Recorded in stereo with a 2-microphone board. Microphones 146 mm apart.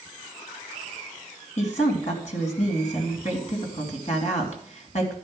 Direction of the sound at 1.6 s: 55° left (ahead or behind).